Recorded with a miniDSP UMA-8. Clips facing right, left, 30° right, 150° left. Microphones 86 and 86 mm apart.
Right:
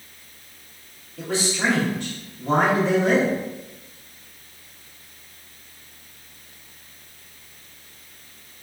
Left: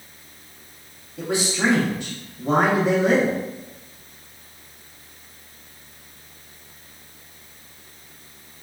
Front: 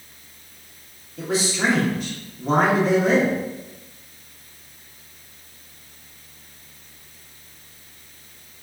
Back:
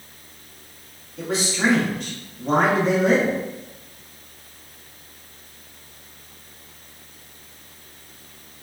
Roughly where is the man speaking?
Ahead left.